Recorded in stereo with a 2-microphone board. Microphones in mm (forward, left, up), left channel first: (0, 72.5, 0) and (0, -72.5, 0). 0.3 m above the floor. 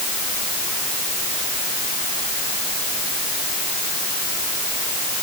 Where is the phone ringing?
No phone ringing in this recording.